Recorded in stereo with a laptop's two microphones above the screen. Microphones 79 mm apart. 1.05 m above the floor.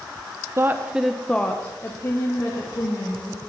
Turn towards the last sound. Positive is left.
turn(degrees=50)  # may be behind; listen again after turning